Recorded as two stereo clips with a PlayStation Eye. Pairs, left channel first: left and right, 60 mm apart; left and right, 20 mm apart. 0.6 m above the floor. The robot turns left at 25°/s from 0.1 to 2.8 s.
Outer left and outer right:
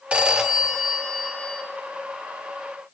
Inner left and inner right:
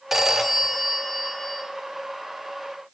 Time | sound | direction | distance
0.1 | a phone ringing | 160° right | 0.7 m